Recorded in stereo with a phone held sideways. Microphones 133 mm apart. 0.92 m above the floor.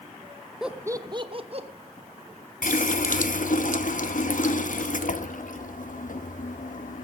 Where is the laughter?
5° right (ahead or behind), 0.7 m; by 1.7 s 50° right (ahead or behind), 1.4 m.